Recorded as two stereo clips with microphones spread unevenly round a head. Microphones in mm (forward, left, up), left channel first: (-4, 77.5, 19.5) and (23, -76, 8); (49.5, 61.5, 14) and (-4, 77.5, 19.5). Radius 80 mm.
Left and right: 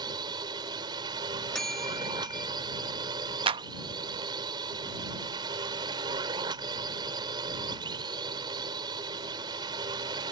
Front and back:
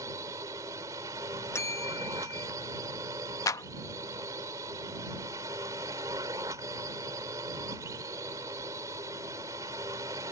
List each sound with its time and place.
0.0 s a drone: 145° right
1.5 s a bell: 10° left
3.5 s a clap: 25° right